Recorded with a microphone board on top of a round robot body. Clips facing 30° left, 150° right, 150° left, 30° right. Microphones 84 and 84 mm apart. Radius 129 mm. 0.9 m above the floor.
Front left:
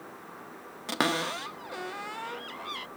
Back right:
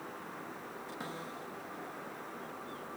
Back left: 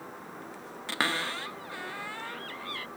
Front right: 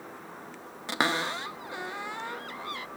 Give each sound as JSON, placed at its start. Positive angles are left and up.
{"t": 0.9, "sound": "a cupboard door", "azimuth_deg": 40}